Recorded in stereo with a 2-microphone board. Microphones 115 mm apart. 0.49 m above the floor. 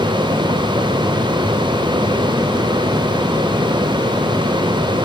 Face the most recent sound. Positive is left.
No sound to turn to.